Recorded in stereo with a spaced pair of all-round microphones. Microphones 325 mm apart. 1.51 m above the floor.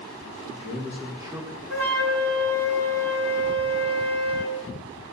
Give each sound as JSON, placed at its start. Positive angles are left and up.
{"t": 0.3, "sound": "a man speaking", "side_deg": -20, "distance_m": 2.0}
{"t": 1.7, "sound": "a flute", "side_deg": -45, "distance_m": 1.9}